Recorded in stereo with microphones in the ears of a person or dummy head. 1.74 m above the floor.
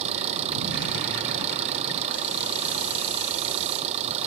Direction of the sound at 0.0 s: 40° right (ahead or behind).